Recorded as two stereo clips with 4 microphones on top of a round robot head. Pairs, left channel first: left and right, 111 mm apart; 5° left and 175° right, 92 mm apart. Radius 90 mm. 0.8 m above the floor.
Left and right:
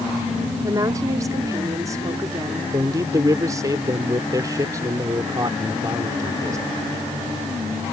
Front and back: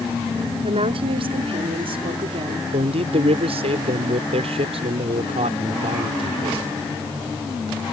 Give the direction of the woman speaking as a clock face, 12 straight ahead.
5 o'clock.